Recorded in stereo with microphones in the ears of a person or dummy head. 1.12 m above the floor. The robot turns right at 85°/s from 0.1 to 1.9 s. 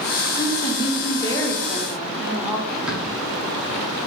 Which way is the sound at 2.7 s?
5° left (ahead or behind).